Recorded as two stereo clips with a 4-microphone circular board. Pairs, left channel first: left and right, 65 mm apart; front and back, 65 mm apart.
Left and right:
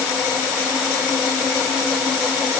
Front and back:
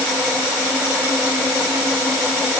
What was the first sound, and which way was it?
Only background noise.